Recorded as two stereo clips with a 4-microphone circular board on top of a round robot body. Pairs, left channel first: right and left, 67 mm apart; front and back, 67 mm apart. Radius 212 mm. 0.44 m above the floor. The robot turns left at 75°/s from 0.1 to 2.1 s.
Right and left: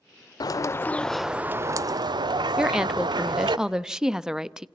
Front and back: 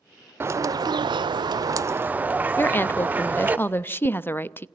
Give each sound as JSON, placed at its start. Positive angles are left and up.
{"t": 0.4, "sound": "a bird", "azimuth_deg": -120, "distance_m": 0.6}
{"t": 2.6, "sound": "a woman speaking", "azimuth_deg": 15, "distance_m": 1.0}